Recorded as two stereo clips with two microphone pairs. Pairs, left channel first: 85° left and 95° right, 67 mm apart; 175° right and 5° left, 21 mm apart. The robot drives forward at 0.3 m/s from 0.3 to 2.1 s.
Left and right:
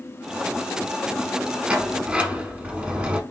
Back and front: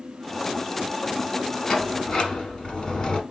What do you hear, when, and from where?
1.7 s a sliding door: 140° right, 1.0 m; by 3.2 s 150° right, 1.0 m